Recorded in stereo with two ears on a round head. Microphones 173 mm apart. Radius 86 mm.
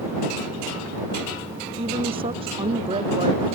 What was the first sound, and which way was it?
A woman speaking, 25° right (ahead or behind).